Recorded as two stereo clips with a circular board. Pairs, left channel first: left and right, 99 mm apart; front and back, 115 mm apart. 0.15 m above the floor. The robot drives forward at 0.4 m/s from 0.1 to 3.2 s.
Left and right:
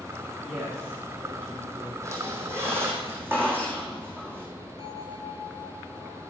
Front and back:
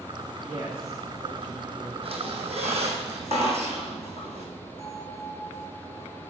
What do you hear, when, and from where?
0.5 s a woman speaking: 160° right, 2 m; by 1.9 s 165° right, 2.5 m
2.0 s a squeak: 150° right, 1.1 m; by 4.5 s 160° right, 1.6 m
4.8 s a bell: 80° right, 0.8 m